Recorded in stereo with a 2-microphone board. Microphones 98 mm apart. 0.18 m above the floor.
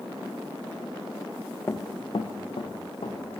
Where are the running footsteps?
25° left (ahead or behind), 0.6 m; by 3.4 s 85° left, 1.9 m.